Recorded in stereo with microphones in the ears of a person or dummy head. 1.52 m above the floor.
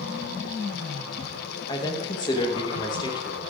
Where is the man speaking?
25° left (ahead or behind), 1.5 m.